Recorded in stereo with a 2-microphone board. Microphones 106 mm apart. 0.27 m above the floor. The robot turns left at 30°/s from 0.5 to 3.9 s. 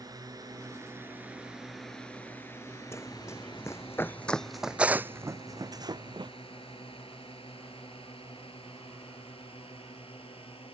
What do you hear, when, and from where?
0.0 s a drone: 35° right (ahead or behind); by 10.8 s 65° left (ahead or behind)
2.9 s running footsteps: 25° left (ahead or behind); by 6.3 s 45° right (ahead or behind)